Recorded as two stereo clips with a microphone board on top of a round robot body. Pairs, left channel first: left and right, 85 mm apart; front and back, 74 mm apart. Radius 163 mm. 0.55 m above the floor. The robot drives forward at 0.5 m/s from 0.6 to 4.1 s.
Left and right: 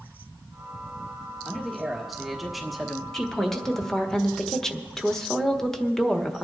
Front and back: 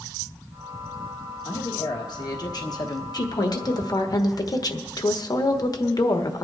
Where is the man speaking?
Straight ahead, 1.8 m.